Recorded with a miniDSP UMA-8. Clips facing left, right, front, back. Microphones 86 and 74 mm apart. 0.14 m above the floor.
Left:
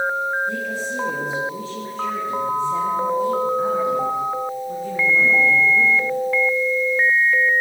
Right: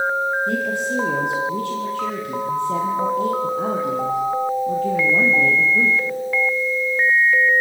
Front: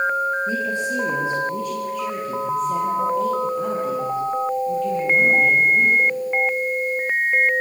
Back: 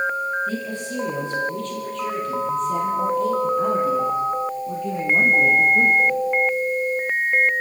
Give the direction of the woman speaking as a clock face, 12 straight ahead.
2 o'clock.